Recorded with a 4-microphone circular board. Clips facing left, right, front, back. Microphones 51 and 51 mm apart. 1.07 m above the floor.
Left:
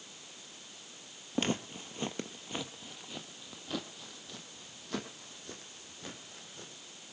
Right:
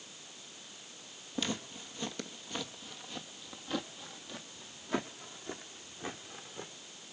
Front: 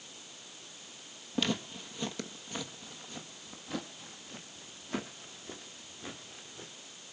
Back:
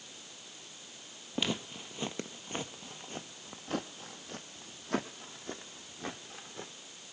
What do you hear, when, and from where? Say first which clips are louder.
1.4 s footsteps: left 4 dB, front 2 dB; 105° left, 1.4 m; by 6.7 s 150° right, 3 m